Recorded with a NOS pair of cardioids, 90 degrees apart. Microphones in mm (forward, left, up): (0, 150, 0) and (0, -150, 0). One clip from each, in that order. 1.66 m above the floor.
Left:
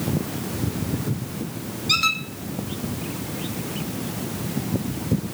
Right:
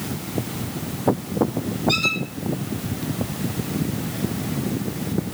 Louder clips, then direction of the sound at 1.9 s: Left 1 dB; 50° left.